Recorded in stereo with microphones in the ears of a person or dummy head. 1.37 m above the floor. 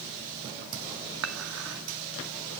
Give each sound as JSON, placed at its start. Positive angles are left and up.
{"t": 1.2, "sound": "dishes clattering", "side_deg": -75, "distance_m": 1.8}